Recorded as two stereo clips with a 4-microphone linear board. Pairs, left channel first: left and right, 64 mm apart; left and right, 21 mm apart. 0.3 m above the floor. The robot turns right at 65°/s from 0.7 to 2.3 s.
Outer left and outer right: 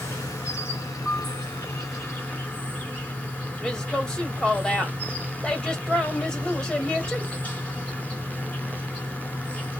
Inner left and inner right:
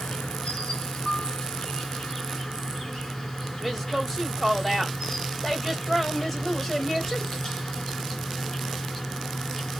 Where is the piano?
20° left (ahead or behind), 1.4 m; by 1.4 s 40° left (ahead or behind), 1.4 m.